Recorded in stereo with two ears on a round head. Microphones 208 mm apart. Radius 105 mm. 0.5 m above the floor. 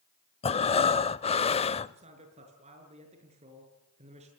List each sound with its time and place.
0.4 s breathing: 25° left (ahead or behind), 0.6 m
1.9 s a man speaking: 30° right (ahead or behind), 7 m